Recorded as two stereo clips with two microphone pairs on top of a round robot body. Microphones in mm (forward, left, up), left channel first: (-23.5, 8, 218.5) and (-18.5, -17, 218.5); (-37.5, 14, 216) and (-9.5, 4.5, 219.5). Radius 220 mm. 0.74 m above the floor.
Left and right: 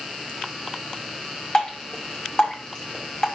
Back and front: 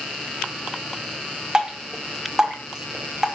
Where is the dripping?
50° left, 0.9 m.